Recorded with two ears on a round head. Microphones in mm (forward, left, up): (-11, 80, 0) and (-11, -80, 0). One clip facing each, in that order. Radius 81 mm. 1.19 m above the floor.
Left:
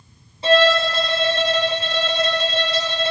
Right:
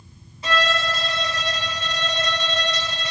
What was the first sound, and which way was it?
A violin, 25° left (ahead or behind).